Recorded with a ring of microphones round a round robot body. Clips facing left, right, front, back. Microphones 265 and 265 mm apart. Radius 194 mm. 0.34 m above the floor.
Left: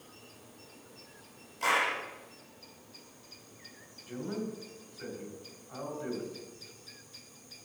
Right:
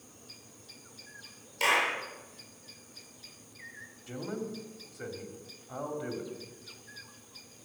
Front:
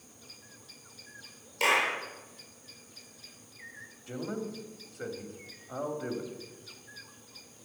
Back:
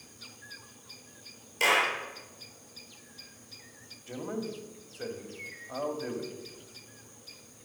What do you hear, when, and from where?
1.6 s a clap: 110° right, 6 m
4.1 s a man speaking: 80° right, 2.5 m